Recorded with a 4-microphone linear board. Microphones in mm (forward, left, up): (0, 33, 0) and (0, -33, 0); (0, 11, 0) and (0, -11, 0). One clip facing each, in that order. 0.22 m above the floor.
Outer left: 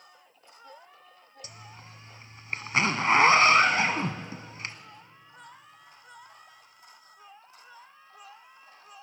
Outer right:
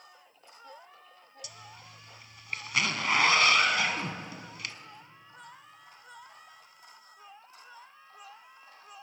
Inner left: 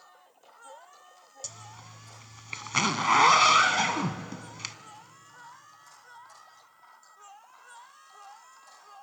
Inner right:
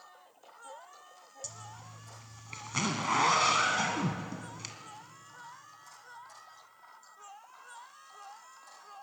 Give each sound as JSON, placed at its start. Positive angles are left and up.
{"t": 1.4, "sound": "a zipper", "side_deg": 30, "distance_m": 1.2}